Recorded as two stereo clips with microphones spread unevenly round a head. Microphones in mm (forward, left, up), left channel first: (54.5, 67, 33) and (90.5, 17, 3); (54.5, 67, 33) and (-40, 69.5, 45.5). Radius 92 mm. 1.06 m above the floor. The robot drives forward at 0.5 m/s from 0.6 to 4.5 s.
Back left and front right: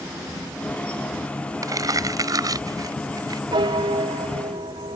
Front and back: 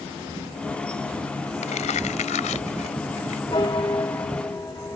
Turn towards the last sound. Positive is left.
turn(degrees=-80)